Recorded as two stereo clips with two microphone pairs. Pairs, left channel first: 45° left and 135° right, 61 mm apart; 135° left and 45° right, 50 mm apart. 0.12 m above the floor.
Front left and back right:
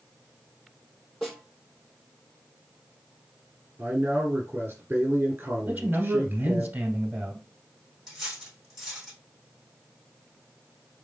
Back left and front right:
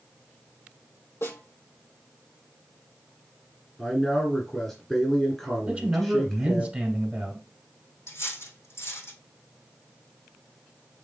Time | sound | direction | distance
1.2 | a snare drum | 135° left | 3 m
3.8 | a man speaking | 150° right | 1.6 m
5.7 | a man speaking | 100° right | 1.5 m
8.1 | cutlery clinking | 140° left | 3 m